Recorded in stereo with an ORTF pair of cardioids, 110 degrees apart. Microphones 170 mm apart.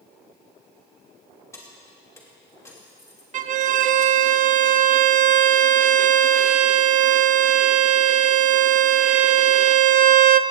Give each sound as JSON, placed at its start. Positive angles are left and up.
{"t": 1.5, "sound": "keys jangling", "azimuth_deg": 15, "distance_m": 2.5}
{"t": 3.3, "sound": "a violin", "azimuth_deg": -50, "distance_m": 0.5}